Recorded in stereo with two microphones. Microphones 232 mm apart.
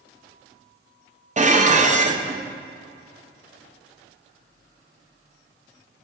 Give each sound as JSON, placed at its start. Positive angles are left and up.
{"t": 1.4, "sound": "dishes clattering", "side_deg": -30, "distance_m": 0.6}